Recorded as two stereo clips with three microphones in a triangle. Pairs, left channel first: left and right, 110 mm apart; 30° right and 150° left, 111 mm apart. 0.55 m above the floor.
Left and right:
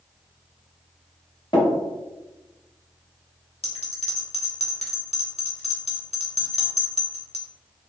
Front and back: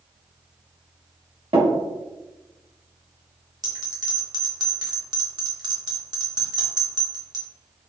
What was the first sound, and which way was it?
Tapping, 130° left.